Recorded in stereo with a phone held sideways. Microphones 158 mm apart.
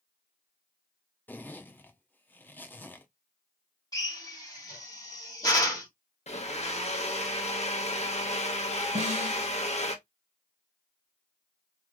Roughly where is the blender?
Left.